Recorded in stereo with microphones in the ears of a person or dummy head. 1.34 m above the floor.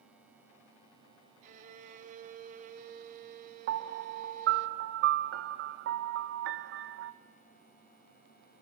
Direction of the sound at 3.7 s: 65° right (ahead or behind).